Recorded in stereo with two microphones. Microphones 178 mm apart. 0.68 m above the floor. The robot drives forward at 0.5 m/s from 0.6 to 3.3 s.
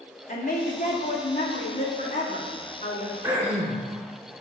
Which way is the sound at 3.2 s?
15° right (ahead or behind).